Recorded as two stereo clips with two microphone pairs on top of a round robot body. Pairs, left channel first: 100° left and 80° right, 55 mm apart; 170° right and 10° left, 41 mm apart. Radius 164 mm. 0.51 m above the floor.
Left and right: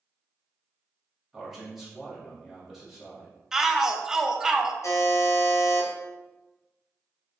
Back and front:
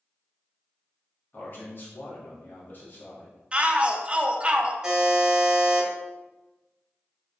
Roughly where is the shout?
Ahead.